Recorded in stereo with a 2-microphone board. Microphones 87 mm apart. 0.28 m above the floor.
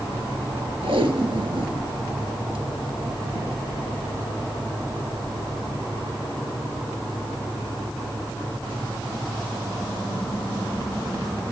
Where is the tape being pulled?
80° right, 1.6 m.